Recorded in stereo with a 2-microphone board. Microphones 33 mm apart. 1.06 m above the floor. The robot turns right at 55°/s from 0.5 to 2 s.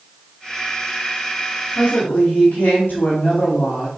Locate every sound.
1.8 s a woman speaking: 80° left, 2.5 m